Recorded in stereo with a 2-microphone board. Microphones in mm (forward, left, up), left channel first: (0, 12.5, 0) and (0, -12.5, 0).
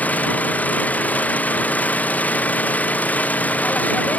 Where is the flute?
I don't hear a flute.